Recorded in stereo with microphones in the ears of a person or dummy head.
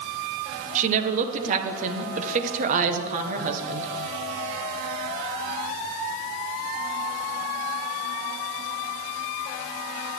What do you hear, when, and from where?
0.8 s a woman speaking: 45° right (ahead or behind), 1.5 m